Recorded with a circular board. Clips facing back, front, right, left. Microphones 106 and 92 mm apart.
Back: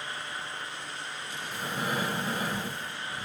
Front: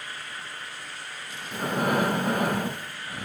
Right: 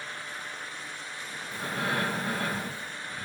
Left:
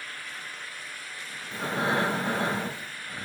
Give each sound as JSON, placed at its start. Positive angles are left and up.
{"t": 1.5, "sound": "breathing", "azimuth_deg": 30, "distance_m": 0.8}